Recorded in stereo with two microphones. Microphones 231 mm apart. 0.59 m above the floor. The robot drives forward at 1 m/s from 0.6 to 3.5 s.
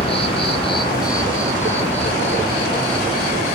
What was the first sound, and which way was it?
An insect, 25° left (ahead or behind).